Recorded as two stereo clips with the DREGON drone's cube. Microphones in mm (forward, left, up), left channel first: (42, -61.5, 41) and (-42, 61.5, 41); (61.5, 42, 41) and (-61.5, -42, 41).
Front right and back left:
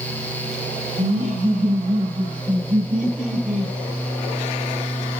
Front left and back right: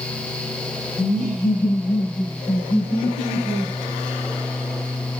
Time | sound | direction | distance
1.0 | laughter | 70° left | 8 m